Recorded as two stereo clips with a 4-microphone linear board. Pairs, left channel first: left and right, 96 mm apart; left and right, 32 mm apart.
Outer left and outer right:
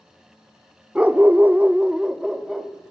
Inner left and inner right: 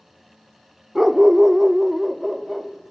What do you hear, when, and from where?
0.9 s a dog barking: 10° right (ahead or behind), 0.9 m; by 2.9 s 5° right (ahead or behind), 2.5 m